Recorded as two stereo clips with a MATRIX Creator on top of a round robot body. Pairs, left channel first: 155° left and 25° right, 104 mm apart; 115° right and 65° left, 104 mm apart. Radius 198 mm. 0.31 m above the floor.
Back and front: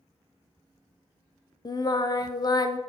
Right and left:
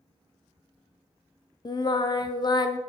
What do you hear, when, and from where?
1.6 s singing: 155° right, 0.7 m